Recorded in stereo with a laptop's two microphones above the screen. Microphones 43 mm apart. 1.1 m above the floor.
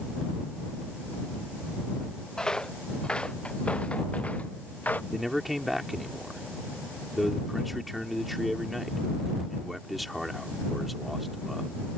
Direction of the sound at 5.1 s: 5° right (ahead or behind).